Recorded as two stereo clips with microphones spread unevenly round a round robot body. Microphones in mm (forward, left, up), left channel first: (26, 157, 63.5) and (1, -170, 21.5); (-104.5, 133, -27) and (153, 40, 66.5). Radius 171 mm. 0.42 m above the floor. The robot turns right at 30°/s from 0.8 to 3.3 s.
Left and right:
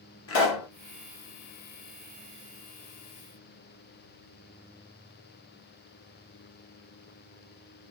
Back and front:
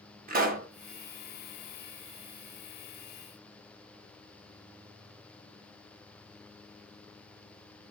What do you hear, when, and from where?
0.3 s a pop: 50° left, 1.0 m